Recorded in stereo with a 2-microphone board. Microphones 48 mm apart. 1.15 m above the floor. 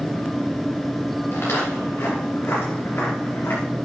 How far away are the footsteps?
About 5.5 m.